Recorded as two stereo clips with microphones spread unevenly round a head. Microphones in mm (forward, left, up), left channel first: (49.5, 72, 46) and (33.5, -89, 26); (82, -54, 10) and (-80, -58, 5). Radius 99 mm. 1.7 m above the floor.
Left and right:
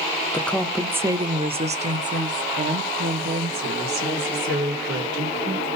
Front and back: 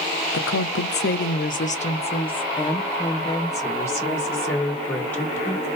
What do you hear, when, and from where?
0.3 s a woman speaking: 10° left, 0.8 m; by 5.7 s 80° right, 3 m